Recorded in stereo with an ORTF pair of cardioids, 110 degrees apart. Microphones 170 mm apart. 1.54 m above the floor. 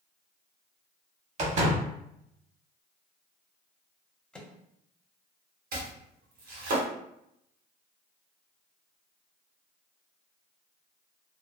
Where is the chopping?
60° right, 1.6 m.